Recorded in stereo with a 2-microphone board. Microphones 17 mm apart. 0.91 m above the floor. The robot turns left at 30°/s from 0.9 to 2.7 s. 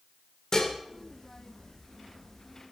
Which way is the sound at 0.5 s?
35° left (ahead or behind).